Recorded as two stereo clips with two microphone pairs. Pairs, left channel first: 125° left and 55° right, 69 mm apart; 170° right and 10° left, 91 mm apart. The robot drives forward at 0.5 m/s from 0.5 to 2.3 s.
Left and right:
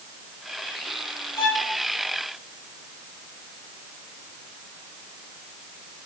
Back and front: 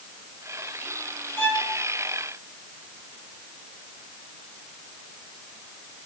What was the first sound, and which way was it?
A violin, 115° left.